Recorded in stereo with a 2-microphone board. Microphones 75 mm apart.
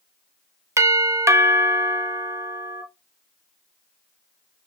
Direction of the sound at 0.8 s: 40° right (ahead or behind).